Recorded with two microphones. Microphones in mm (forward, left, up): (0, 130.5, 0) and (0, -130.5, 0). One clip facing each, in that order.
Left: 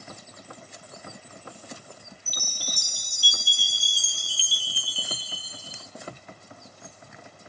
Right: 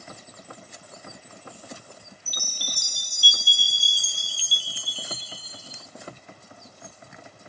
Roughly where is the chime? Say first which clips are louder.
Even; right.